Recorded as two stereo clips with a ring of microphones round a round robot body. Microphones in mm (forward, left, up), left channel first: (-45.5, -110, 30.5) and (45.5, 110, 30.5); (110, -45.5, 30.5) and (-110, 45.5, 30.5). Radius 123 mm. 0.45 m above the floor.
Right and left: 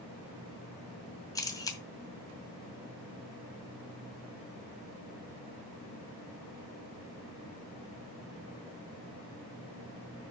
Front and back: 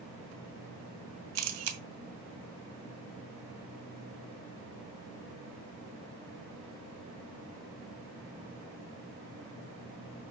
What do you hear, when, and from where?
1.4 s a camera shutter: 170° left, 2 m